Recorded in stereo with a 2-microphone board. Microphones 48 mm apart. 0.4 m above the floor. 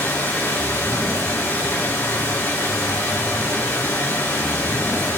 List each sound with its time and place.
0.0 s running water: 50° left (ahead or behind), 3 m